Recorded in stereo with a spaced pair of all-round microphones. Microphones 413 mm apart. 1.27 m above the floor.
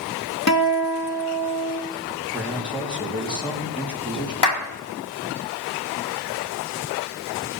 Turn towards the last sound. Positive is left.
turn(degrees=70)  # may be behind; listen again after turning